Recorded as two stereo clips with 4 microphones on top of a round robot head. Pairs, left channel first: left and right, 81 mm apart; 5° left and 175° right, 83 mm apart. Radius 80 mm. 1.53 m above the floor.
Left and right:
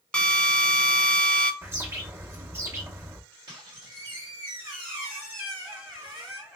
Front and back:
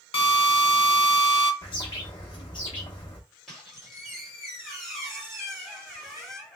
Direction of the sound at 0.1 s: 10° left.